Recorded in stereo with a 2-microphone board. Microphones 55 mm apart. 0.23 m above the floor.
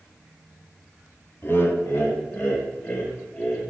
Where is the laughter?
45° left (ahead or behind), 1.6 m; by 3.6 s 40° left (ahead or behind), 4.5 m.